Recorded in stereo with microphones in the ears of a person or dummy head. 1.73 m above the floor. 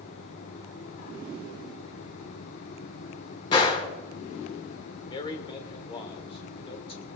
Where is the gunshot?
30° left (ahead or behind), 3 m.